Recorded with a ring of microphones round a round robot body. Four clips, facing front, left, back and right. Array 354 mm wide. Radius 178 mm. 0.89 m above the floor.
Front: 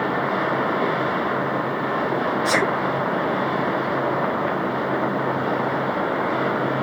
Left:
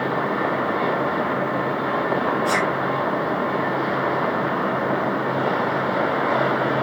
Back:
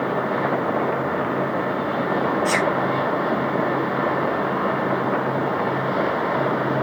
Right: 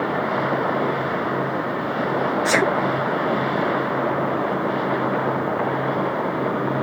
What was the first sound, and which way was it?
A sneeze, 70° right.